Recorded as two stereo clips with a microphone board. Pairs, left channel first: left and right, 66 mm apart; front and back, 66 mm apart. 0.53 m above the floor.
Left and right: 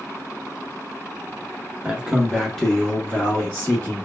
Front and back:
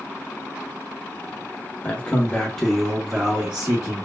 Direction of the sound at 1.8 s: 35° right.